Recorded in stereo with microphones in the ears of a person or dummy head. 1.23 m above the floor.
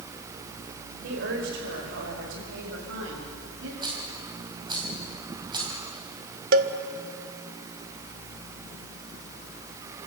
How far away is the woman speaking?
About 4.5 m.